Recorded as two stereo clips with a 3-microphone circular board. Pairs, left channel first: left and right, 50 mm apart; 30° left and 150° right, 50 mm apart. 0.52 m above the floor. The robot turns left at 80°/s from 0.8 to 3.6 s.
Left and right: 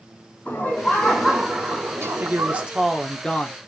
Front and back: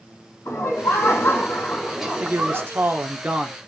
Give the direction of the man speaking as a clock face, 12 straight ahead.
3 o'clock.